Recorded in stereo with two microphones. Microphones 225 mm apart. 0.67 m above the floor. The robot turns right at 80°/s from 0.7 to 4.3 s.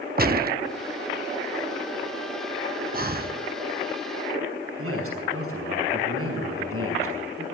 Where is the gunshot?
45° right (ahead or behind), 0.6 m.